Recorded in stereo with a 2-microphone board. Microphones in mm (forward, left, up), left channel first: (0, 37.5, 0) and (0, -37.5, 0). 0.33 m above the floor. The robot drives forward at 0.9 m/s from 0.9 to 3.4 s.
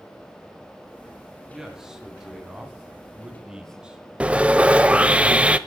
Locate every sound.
1.5 s a man speaking: 5° right (ahead or behind), 4 m; by 4.0 s 10° right (ahead or behind), 2 m
4.2 s sawing: 15° right (ahead or behind), 0.6 m